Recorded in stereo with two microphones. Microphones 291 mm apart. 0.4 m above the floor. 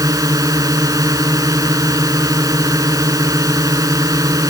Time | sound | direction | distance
0.0 | a drone | 10° right (ahead or behind) | ?